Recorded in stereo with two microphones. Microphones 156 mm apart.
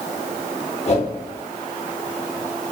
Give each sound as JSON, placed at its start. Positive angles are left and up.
{"t": 0.9, "sound": "a whoosh", "side_deg": 45, "distance_m": 0.8}